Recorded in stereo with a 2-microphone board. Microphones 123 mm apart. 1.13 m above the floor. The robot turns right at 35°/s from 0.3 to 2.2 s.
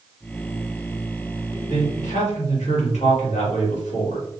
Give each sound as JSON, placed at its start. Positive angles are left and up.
{"t": 1.7, "sound": "a man speaking", "side_deg": 85, "distance_m": 1.6}